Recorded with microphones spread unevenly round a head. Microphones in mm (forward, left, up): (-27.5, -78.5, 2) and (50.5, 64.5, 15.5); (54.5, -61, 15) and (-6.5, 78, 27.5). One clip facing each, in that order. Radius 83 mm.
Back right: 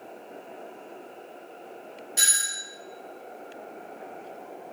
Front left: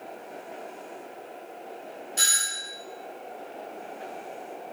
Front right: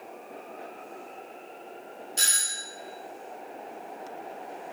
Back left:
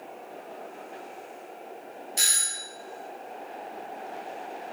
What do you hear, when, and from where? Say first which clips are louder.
2.2 s a doorbell: front left 1 dB, even; 165° right, 0.8 m